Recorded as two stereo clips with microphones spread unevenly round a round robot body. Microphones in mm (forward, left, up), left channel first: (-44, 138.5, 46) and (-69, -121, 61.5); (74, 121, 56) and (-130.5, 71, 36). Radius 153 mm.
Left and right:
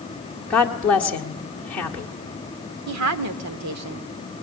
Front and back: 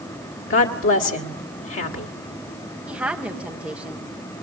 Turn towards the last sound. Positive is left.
turn(degrees=-85)